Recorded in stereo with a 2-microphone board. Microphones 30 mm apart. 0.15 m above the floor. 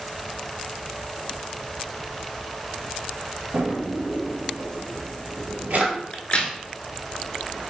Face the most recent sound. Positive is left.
turn(degrees=40)  # may be behind; listen again after turning